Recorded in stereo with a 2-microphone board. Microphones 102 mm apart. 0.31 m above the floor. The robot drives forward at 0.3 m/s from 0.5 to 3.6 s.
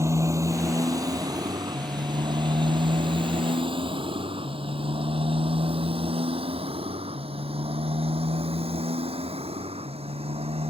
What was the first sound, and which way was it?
A motorcycle, 30° right (ahead or behind).